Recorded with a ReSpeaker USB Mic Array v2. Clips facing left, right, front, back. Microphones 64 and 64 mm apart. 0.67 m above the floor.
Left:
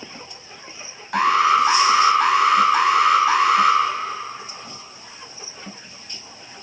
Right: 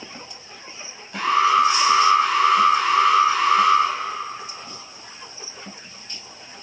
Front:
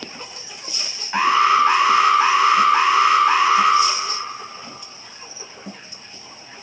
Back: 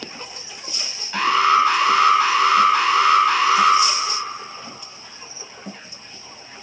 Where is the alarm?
65° left, 4.5 m.